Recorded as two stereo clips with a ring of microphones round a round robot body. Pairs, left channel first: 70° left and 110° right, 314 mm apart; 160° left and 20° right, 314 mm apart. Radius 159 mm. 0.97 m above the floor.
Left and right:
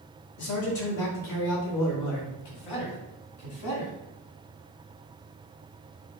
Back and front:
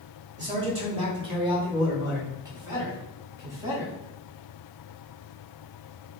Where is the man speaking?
45° left, 1.7 m; by 3.9 s 60° left, 3.5 m.